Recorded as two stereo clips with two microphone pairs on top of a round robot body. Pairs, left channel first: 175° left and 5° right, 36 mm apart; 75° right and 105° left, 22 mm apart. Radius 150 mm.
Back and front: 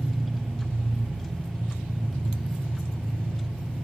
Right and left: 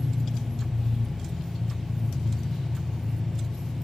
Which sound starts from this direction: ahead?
An engine running, at 0.0 s.